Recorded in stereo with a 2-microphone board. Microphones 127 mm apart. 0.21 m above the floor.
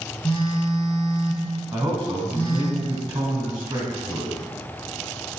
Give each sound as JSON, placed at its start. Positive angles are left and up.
{"t": 0.2, "sound": "a phone buzzing", "side_deg": 15, "distance_m": 1.4}
{"t": 1.7, "sound": "a man speaking", "side_deg": -25, "distance_m": 1.1}